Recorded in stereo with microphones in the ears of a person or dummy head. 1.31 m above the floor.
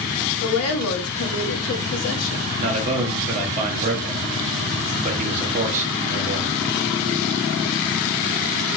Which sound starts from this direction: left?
A woman speaking, at 0.4 s.